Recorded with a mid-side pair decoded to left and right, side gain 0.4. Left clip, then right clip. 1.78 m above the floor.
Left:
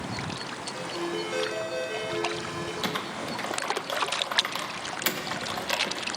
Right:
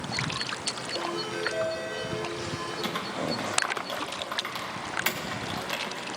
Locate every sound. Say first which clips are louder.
0.7 s a ringtone: even; 65° left, 4.5 m
2.8 s typing on a keyboard: right 1 dB; 40° left, 1.5 m